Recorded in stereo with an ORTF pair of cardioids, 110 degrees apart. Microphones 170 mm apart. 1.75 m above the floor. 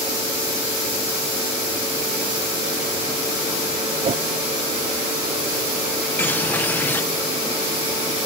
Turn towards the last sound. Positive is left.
turn(degrees=10)